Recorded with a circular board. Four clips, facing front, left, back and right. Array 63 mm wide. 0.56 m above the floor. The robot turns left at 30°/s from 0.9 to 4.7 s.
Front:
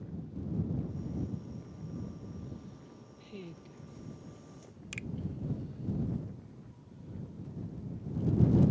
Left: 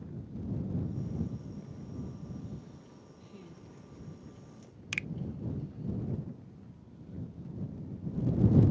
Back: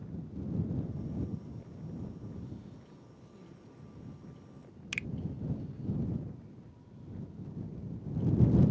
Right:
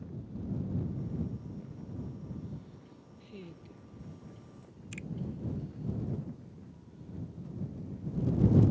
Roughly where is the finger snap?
Behind left.